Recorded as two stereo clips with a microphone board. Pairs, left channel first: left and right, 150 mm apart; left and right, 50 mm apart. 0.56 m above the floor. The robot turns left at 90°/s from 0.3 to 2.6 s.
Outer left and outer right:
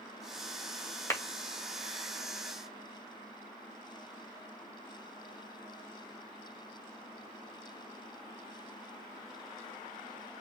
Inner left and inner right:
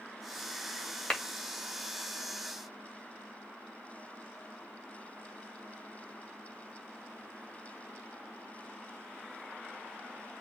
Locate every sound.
1.1 s a clap: 20° left (ahead or behind), 2.0 m; by 1.2 s 10° left (ahead or behind), 2.0 m